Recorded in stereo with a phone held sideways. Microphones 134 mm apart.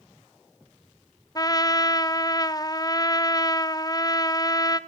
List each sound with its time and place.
1.4 s a trumpet: 30° left (ahead or behind), 0.5 m